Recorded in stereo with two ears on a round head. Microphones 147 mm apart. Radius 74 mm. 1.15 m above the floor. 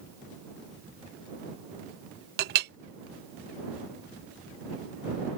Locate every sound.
2.4 s a clink: 65° right (ahead or behind)